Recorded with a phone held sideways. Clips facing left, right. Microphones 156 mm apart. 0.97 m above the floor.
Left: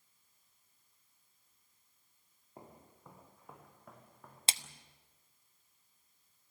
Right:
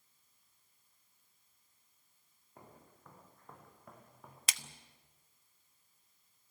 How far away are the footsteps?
About 4.5 m.